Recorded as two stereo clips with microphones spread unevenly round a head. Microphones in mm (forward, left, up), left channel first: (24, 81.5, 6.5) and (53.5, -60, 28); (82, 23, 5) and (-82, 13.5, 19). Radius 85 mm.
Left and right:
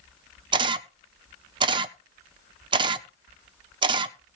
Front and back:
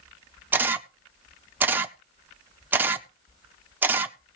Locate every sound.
0.5 s a camera shutter: 110° right, 0.6 m